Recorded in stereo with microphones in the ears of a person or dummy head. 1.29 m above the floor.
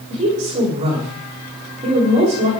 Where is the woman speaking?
30° right (ahead or behind), 5 m.